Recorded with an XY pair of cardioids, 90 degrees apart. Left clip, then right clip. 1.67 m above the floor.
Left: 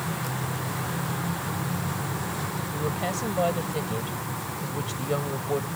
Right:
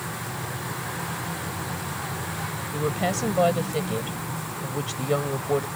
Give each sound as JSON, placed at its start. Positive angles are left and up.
{"t": 2.7, "sound": "a woman speaking", "azimuth_deg": -40}